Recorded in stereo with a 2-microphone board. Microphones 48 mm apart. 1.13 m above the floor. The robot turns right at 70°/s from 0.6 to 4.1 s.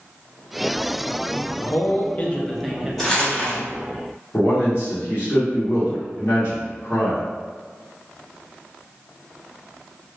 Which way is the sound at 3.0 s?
5° left (ahead or behind).